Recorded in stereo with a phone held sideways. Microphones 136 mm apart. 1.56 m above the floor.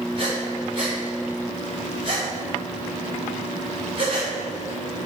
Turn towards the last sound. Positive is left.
turn(degrees=-40)  # may be behind; listen again after turning